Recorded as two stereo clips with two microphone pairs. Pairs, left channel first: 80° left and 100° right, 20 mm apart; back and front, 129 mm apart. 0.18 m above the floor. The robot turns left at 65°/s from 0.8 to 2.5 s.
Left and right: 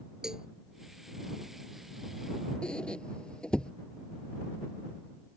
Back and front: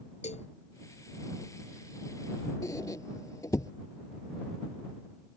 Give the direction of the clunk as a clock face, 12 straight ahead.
No clunk in this recording.